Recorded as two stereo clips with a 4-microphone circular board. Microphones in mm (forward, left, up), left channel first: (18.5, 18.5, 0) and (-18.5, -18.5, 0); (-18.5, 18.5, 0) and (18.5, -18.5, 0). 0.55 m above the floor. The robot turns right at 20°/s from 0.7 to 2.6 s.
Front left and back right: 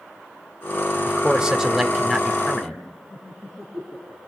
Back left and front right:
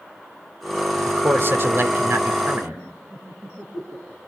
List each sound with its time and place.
1.0 s a man speaking: 65° right, 2 m; by 2.8 s 35° right, 2 m
3.1 s laughter: 20° left, 8.5 m